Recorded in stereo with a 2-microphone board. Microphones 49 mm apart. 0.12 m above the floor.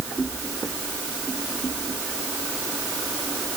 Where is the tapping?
I don't hear tapping.